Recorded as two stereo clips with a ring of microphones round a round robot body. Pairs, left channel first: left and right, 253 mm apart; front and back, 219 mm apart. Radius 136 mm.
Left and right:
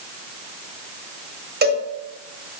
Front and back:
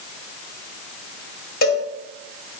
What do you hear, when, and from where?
1.6 s a cowbell: 45° right, 2 m